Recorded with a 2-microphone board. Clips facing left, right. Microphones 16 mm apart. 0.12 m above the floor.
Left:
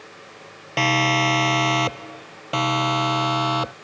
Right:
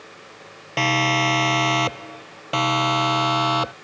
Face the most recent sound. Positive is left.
turn(degrees=-10)  # may be behind; listen again after turning